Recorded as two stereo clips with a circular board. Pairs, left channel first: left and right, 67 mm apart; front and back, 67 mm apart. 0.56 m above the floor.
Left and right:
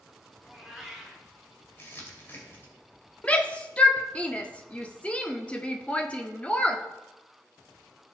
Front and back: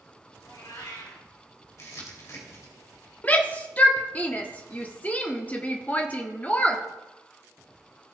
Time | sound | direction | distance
0.4 | a cat meowing | straight ahead | 4.5 m
1.8 | crumpling | 35° left | 2.5 m
3.2 | a shout | 40° left | 1.0 m